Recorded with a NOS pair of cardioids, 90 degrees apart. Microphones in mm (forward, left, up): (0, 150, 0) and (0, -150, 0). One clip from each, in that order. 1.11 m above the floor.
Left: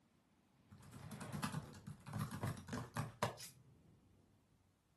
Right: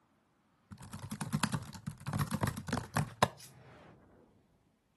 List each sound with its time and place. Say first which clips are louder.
0.7 s typing on a keyboard: right 9 dB; 60° right, 0.6 m
3.4 s cutlery clinking: even; straight ahead, 1.5 m